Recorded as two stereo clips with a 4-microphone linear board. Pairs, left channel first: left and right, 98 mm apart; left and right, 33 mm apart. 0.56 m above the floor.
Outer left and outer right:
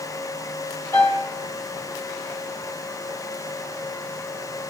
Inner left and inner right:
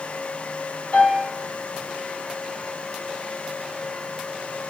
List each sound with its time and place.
0.9 s a piano: 30° left (ahead or behind), 0.9 m